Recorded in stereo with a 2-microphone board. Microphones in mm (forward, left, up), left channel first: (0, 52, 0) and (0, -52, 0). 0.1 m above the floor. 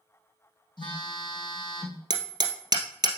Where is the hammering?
40° right (ahead or behind), 2.0 m.